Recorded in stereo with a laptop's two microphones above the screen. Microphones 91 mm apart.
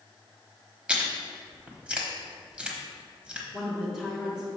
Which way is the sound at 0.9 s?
10° right (ahead or behind).